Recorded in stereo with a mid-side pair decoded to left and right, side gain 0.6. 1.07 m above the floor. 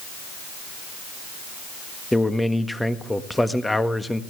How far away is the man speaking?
About 1.5 m.